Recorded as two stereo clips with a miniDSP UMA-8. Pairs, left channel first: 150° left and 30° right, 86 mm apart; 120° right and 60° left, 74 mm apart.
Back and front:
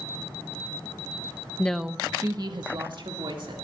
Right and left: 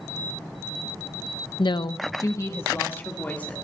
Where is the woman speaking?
140° right, 0.6 m; by 3.6 s 50° right, 2.5 m.